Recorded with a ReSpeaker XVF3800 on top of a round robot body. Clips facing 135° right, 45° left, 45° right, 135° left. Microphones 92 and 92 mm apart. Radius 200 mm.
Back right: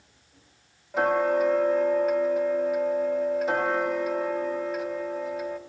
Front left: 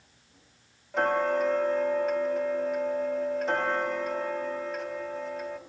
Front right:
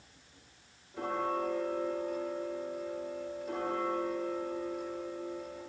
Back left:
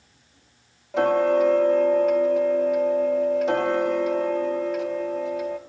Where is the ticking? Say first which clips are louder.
Back right 3 dB, back left 15 dB; 140° left, 0.6 m.